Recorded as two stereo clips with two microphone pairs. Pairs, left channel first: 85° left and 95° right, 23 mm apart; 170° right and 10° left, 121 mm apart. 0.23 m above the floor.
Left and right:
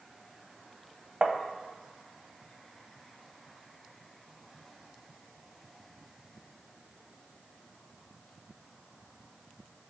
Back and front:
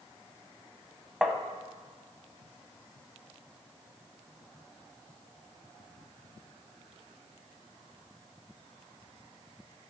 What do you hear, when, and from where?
1.2 s tapping: 80° right, 0.7 m